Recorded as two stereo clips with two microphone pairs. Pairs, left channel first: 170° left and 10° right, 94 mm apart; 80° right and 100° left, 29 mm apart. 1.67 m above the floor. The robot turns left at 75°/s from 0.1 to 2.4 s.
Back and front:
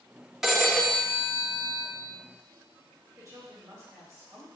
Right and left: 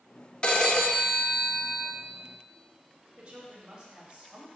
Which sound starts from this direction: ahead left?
A woman speaking, at 3.2 s.